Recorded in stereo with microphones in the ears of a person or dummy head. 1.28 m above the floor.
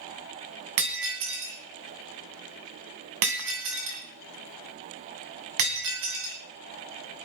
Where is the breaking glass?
55° right (ahead or behind), 2.5 m.